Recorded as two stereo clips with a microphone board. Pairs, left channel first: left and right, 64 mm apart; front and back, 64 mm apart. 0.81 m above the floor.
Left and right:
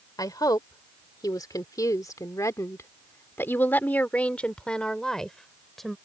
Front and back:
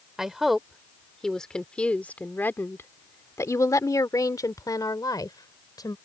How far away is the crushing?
No crushing in this recording.